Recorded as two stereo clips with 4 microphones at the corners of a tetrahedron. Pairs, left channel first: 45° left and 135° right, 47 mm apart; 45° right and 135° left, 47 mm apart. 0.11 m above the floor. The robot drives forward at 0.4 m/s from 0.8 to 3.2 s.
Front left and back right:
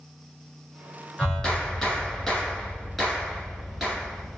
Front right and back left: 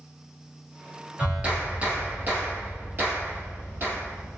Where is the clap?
100° left, 1.4 m; by 4.4 s 140° left, 1.7 m.